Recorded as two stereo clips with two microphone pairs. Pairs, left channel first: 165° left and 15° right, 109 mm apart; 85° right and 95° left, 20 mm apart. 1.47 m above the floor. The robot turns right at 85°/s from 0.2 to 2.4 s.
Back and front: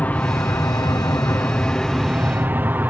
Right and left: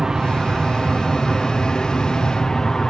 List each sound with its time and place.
0.0 s an aircraft: 105° left; by 2.9 s 70° right